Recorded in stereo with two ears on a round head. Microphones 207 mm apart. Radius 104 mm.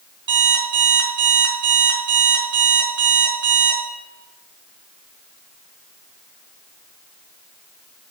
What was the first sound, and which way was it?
An alarm clock, 50° right (ahead or behind).